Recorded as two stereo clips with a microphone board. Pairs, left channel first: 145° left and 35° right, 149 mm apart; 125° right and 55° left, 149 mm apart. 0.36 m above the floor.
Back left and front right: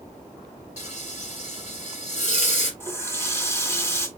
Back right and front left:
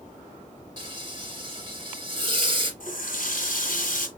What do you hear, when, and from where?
0.8 s frying: 115° left, 3 m
2.8 s a running tap: 140° right, 1.7 m